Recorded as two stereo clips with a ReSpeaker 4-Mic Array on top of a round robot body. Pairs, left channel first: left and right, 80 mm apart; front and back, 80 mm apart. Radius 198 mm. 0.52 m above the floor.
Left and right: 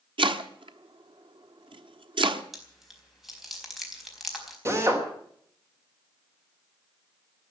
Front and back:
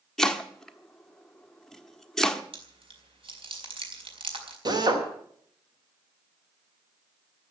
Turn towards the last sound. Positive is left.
turn(degrees=-145)